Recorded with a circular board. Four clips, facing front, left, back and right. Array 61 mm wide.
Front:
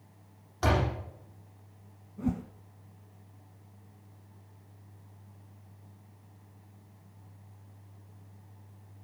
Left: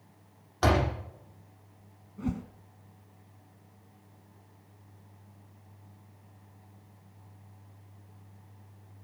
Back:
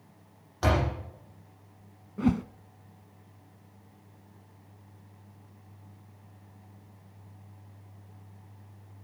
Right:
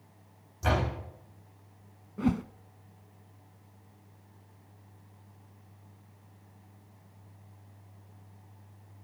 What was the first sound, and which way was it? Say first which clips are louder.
A door slam: left 4 dB, back 1 dB; 95° left.